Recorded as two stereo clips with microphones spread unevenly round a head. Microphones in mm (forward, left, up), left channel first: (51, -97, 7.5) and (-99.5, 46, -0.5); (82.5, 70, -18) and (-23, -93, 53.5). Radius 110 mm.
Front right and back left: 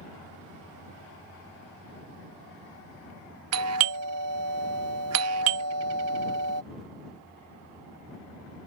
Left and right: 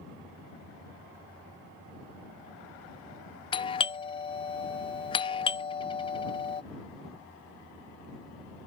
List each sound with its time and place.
3.5 s a doorbell: 120° left